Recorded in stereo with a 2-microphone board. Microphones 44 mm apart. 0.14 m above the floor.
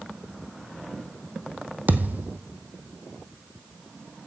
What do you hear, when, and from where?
1.9 s a thud: 45° right (ahead or behind), 0.8 m